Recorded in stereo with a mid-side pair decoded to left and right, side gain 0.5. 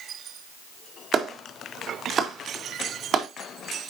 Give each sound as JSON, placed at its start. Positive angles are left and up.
{"t": 1.1, "sound": "a clap", "azimuth_deg": -50, "distance_m": 1.9}